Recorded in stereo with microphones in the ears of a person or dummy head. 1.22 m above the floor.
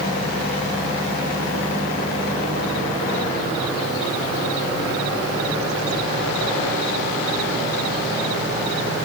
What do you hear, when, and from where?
Only background noise.